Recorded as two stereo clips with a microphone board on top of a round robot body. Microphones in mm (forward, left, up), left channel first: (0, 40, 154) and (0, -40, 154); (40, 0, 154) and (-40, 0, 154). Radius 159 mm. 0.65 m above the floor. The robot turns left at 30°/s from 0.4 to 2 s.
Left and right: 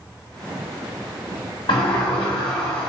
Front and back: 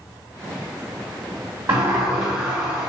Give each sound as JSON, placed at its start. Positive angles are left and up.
{"t": 1.7, "sound": "a sliding door", "azimuth_deg": 120, "distance_m": 0.6}